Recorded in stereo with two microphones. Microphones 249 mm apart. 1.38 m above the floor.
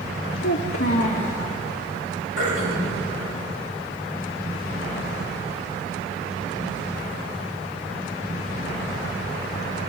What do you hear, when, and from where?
0.4 s a child speaking: 60° left (ahead or behind), 1.4 m
2.4 s throat clearing: 60° left (ahead or behind), 6 m